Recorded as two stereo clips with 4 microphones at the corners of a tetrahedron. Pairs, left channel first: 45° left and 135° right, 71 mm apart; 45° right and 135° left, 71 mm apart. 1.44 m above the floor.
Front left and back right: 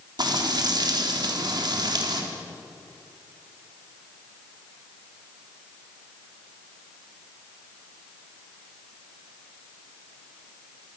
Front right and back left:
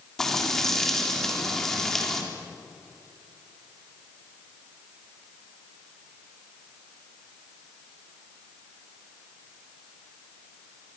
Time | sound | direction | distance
0.2 | frying | 130° right | 3.5 m